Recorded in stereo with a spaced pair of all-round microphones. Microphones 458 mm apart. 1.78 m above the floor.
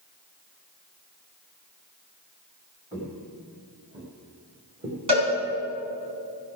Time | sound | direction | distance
2.9 | footsteps | 15° right (ahead or behind) | 3 m
5.1 | a cowbell | 70° right (ahead or behind) | 4.5 m